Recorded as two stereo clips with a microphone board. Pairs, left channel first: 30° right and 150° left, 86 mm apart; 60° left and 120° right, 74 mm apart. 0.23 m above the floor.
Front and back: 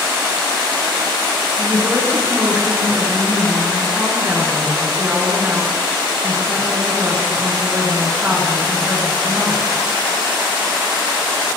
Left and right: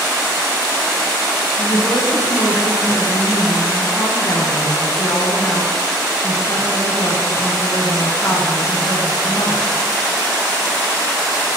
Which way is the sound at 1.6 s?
85° left.